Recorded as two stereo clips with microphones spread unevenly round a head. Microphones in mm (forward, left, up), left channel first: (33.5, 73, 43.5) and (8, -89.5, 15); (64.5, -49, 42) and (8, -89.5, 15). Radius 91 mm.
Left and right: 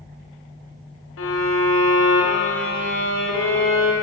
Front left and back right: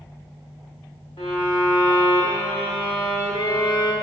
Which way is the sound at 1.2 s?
90° left.